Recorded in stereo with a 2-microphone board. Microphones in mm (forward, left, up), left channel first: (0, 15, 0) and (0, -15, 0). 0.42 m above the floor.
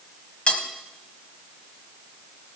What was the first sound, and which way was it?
Cutlery clinking, 40° left (ahead or behind).